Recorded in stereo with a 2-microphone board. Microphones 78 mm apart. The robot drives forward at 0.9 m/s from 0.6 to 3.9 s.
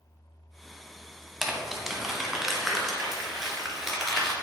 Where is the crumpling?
5° right (ahead or behind), 1.2 m; by 4.3 s centre (ahead or behind), 3 m.